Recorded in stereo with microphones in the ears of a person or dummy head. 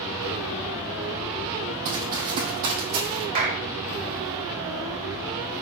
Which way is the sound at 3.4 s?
45° right (ahead or behind).